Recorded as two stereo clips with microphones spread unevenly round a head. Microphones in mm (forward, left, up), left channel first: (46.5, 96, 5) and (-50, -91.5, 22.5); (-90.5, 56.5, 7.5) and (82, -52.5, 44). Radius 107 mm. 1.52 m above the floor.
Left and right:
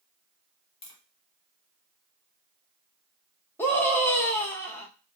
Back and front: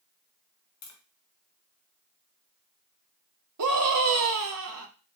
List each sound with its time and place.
0.8 s tapping: 130° left, 1.4 m
3.6 s a scream: 15° right, 1.2 m